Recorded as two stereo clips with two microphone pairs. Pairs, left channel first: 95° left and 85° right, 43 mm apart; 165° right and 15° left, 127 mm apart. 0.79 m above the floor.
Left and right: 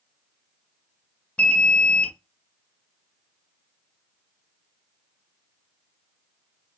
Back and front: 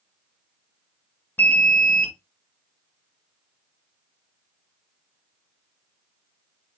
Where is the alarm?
125° left, 0.7 m.